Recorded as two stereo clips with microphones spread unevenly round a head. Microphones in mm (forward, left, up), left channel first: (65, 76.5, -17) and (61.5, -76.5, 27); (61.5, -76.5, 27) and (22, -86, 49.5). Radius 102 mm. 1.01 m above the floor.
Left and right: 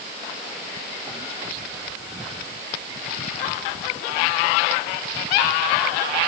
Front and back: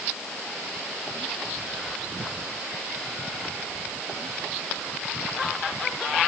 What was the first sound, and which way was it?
Only background noise.